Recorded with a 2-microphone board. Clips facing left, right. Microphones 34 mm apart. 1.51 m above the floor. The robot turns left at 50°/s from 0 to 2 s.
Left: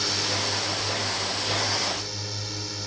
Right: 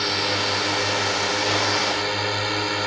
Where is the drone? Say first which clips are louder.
Right 5 dB; 25° right; by 2.9 s 125° right.